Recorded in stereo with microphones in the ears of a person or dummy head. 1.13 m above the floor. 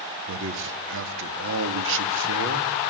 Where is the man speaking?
65° right (ahead or behind), 2.5 m.